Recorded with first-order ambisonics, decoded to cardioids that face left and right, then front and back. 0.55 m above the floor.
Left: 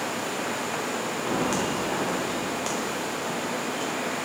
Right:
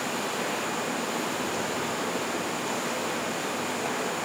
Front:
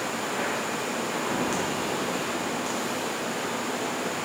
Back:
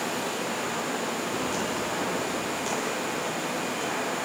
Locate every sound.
1.2 s footsteps: 65° left, 3 m; by 4.0 s 115° left, 4.5 m